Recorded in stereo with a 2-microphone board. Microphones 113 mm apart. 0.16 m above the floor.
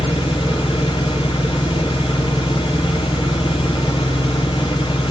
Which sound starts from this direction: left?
An engine running, at 0.0 s.